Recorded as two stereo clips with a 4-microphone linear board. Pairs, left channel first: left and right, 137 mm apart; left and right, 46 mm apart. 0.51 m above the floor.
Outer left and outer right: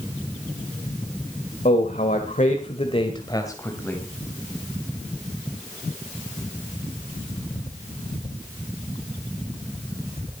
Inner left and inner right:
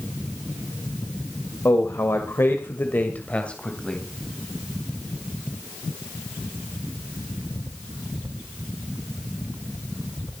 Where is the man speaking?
70° left (ahead or behind), 2.0 m; by 4.1 s 10° left (ahead or behind), 2.5 m.